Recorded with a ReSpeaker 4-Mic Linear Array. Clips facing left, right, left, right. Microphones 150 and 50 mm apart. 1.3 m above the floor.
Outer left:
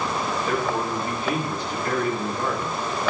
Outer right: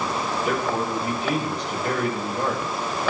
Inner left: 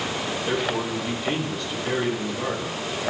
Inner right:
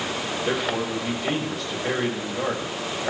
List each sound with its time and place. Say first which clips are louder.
0.5 s a man speaking: outer right 1 dB, even; 90° right, 6.5 m